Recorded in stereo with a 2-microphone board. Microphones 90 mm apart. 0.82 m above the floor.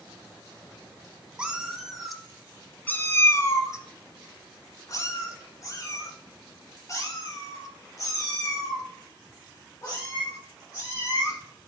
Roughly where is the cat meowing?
Centre.